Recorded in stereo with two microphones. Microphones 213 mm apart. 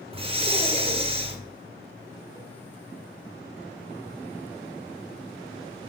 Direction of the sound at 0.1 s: 25° right (ahead or behind).